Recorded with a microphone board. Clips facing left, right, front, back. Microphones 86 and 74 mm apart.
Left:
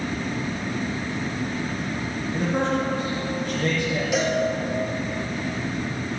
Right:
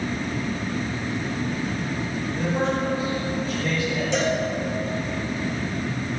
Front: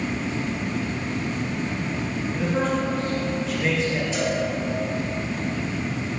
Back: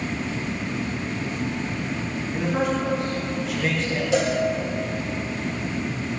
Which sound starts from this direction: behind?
A cowbell, at 4.1 s.